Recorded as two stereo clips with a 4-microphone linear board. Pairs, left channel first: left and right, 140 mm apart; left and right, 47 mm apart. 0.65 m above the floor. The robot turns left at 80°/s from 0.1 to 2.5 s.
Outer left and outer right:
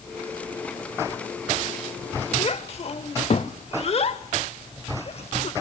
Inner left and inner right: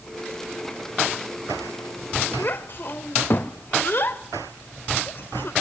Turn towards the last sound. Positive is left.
turn(degrees=45)  # may be behind; listen again after turning